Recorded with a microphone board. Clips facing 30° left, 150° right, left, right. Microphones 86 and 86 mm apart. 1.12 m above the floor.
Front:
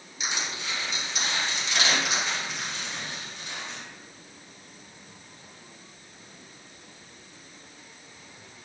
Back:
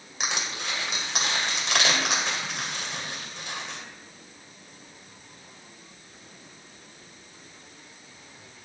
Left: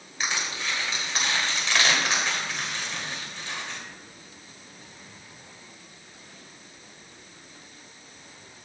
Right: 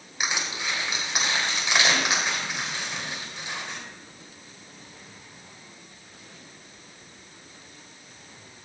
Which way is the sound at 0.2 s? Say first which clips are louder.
Back 2 dB, right 1 dB; 165° right.